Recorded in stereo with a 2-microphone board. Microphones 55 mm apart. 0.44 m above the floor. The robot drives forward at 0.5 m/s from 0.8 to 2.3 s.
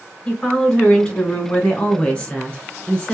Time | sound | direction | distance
0.2 | a woman speaking | 15° left (ahead or behind) | 2.0 m